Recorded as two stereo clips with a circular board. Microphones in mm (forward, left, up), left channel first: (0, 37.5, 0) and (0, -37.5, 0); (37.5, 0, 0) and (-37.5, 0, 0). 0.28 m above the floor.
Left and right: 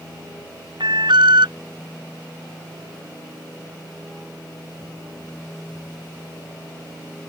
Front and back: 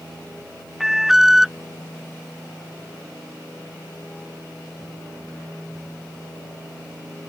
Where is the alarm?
95° right.